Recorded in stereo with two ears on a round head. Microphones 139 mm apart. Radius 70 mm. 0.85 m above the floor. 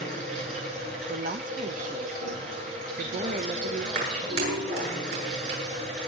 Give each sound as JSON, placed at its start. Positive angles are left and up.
{"t": 0.0, "sound": "running water", "side_deg": -55, "distance_m": 8.0}
{"t": 1.1, "sound": "a woman speaking", "side_deg": -55, "distance_m": 0.8}
{"t": 4.0, "sound": "a clap", "side_deg": -75, "distance_m": 8.5}